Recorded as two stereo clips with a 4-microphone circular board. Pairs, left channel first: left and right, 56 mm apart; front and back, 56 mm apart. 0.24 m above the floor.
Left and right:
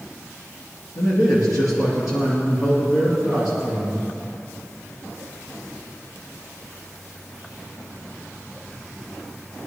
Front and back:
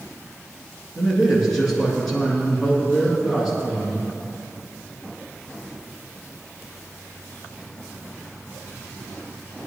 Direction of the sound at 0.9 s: 85° left.